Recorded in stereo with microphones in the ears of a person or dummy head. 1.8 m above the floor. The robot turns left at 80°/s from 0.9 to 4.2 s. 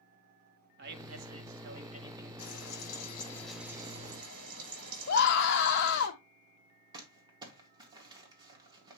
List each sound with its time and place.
0.8 s a man speaking: 65° right, 1.2 m; by 2.3 s 175° right, 1.2 m
2.4 s frying: 90° left, 6.5 m; by 6.1 s 55° right, 6.5 m
5.1 s a scream: 60° left (ahead or behind), 0.8 m
6.9 s crumpling: 25° right (ahead or behind), 2 m